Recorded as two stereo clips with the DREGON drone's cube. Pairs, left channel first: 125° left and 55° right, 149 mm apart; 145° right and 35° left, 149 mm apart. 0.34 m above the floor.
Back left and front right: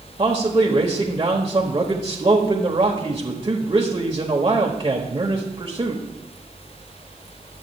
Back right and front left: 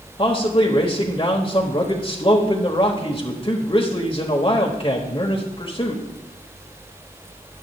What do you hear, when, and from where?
0.2 s a man speaking: 105° right, 1.2 m